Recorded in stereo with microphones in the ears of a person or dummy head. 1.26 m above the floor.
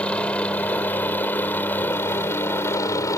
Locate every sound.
0.0 s a helicopter: 10° left (ahead or behind); by 3.2 s 20° left (ahead or behind)